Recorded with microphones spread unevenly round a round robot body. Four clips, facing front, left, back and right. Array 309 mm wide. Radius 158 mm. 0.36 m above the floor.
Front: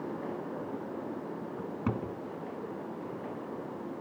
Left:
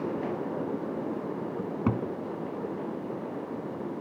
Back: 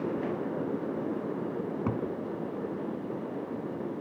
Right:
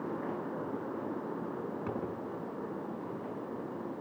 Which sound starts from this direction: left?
A cupboard door, at 1.6 s.